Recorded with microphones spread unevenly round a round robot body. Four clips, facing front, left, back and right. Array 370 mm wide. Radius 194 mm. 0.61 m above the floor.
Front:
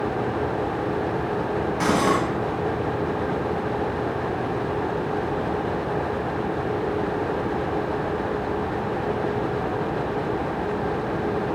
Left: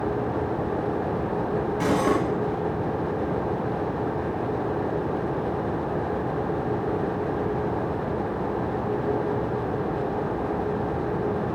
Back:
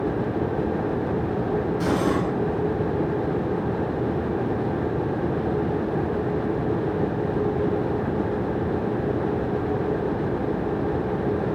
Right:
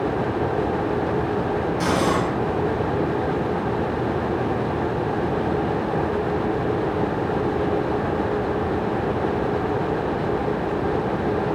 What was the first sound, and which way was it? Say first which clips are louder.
Cutlery clinking: even, front 4 dB; 5° left.